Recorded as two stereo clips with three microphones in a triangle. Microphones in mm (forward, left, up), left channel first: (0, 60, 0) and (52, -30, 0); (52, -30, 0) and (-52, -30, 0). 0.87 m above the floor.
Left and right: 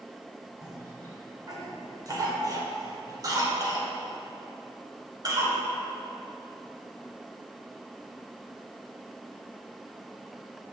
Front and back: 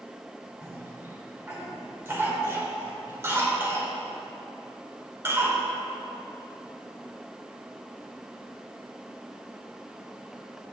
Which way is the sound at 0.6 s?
110° right.